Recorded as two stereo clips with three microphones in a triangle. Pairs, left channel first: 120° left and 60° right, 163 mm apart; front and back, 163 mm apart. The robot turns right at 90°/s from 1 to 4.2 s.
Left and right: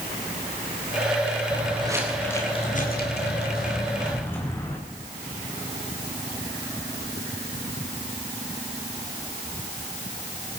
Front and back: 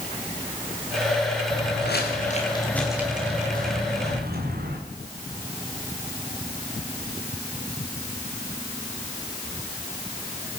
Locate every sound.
1.5 s footsteps: 25° right, 7 m; by 4.8 s 165° right, 8 m